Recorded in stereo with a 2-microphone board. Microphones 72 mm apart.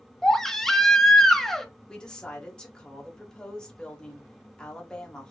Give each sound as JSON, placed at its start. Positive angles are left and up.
{"t": 0.2, "sound": "a baby crying", "side_deg": 5, "distance_m": 0.8}
{"t": 1.9, "sound": "a woman speaking", "side_deg": 10, "distance_m": 1.3}